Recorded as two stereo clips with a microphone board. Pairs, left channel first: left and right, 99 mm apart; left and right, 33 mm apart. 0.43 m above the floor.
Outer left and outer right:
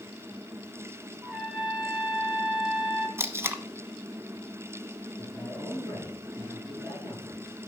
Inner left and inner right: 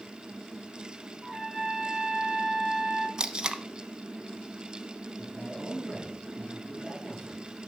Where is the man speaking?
15° left (ahead or behind), 6 m.